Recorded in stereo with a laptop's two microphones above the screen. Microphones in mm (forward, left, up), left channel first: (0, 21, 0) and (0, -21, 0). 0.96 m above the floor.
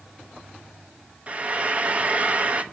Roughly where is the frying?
Right.